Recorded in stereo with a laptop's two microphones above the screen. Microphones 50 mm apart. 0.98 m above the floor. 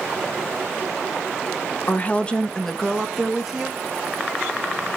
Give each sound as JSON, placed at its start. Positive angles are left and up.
{"t": 1.9, "sound": "a woman speaking", "side_deg": 40, "distance_m": 0.9}